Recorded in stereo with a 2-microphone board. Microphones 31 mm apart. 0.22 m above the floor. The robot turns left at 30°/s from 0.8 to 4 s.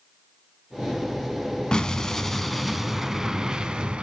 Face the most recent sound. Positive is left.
turn(degrees=-35)